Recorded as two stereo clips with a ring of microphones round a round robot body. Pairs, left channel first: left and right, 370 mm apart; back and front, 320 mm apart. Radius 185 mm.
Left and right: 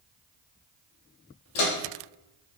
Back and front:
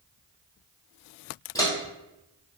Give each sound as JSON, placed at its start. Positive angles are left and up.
{"t": 1.6, "sound": "footsteps", "azimuth_deg": 100, "distance_m": 1.3}